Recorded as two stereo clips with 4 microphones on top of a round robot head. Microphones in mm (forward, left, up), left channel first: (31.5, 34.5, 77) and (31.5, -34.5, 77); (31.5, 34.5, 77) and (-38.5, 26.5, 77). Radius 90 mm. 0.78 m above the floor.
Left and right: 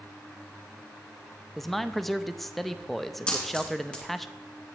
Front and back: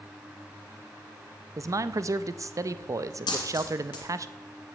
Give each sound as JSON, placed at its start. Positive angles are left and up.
{"t": 1.6, "sound": "a man speaking", "azimuth_deg": 180, "distance_m": 0.6}
{"t": 3.3, "sound": "a dropped coin", "azimuth_deg": 15, "distance_m": 2.0}